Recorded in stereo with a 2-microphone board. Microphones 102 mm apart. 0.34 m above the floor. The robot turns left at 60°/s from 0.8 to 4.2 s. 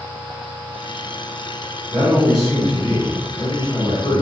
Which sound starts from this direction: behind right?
A man speaking, at 1.9 s.